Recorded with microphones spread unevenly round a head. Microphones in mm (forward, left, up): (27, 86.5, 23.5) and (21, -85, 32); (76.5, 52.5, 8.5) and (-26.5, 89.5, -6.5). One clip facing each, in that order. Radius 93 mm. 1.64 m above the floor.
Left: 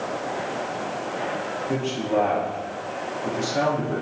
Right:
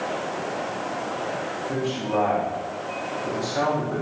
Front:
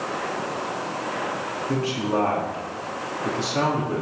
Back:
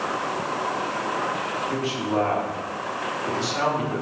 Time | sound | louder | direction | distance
1.7 | a man speaking | left 2 dB, front 3 dB | 25° left | 4.5 m